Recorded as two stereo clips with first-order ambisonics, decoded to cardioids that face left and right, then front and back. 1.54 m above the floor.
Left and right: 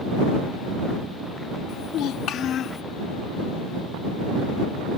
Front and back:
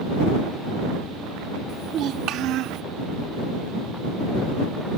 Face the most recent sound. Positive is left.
turn(degrees=150)